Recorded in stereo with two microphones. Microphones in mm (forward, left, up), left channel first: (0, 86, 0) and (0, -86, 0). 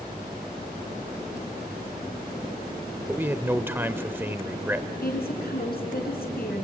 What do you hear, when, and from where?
3.1 s a man speaking: 15° right (ahead or behind), 0.8 m
5.0 s a woman speaking: 65° left (ahead or behind), 4.5 m